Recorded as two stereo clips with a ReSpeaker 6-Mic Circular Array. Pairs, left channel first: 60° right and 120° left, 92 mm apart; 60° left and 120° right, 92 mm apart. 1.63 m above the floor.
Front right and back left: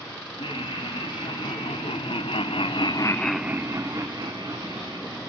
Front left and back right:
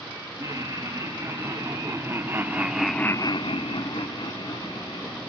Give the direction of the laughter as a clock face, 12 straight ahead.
2 o'clock.